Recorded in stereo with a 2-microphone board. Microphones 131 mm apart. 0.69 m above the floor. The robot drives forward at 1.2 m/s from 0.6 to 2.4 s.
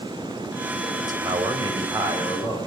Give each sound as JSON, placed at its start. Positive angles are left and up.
{"t": 1.0, "sound": "a man speaking", "side_deg": -35, "distance_m": 3.0}